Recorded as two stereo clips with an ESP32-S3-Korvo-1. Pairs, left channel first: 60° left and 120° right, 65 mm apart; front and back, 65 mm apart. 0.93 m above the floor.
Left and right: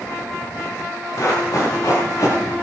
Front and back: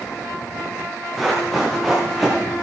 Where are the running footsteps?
85° left, 8 m; by 2.5 s 95° left, 7.5 m.